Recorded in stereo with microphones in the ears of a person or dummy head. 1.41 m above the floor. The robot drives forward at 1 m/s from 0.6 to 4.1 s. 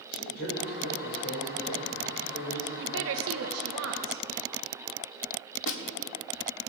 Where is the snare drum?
65° left (ahead or behind), 1.8 m.